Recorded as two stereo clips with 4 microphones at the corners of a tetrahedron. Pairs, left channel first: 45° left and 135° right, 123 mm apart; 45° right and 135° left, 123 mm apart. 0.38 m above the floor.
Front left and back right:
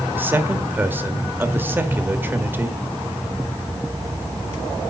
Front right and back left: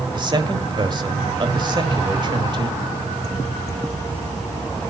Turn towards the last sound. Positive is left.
turn(degrees=160)